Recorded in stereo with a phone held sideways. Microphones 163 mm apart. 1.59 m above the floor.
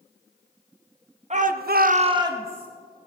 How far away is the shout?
About 0.9 m.